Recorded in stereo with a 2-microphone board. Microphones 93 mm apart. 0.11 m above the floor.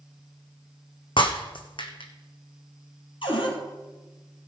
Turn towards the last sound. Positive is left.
turn(degrees=65)  # may be behind; listen again after turning